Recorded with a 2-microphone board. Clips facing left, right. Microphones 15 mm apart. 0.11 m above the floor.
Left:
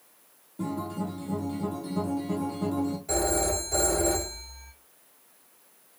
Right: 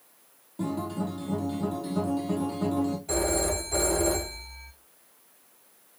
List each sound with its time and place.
0.6 s a guitar: 30° right (ahead or behind), 1.2 m
3.1 s a phone ringing: 5° right (ahead or behind), 2.5 m